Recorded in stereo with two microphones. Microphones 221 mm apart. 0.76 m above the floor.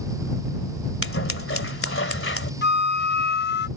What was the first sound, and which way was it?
Scissors, 70° left (ahead or behind).